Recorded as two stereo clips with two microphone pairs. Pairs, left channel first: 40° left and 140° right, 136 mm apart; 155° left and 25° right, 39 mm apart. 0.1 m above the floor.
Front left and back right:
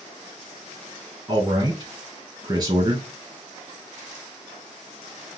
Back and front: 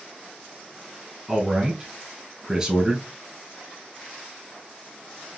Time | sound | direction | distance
1.3 | a man speaking | 95° right | 1.6 m